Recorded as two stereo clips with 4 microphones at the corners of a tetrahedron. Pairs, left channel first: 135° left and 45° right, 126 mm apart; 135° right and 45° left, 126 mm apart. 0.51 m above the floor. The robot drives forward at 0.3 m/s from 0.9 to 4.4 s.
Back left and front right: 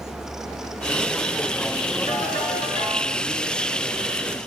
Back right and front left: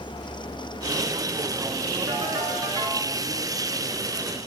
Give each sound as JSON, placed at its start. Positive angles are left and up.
{"t": 2.1, "sound": "a ringtone", "azimuth_deg": 110, "distance_m": 5.5}